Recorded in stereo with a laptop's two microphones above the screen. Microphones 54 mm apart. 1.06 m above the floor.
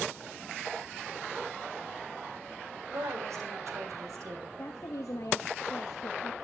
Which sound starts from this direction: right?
A woman speaking, at 2.9 s.